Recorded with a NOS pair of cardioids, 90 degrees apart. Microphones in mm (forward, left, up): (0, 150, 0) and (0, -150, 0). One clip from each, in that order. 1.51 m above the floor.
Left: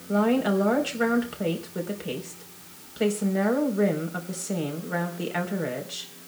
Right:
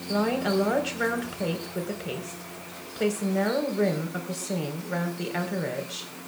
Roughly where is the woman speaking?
Ahead.